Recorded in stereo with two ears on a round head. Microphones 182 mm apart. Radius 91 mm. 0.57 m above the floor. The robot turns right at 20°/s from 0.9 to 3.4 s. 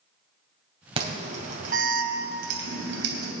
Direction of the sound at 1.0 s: 30° right (ahead or behind).